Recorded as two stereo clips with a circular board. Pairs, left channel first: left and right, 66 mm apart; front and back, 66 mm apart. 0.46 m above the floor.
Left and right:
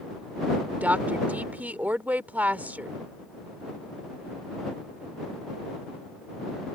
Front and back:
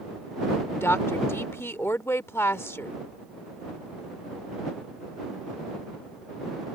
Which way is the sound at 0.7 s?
35° right.